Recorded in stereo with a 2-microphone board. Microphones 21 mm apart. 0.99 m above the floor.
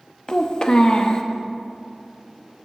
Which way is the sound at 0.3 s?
40° left (ahead or behind).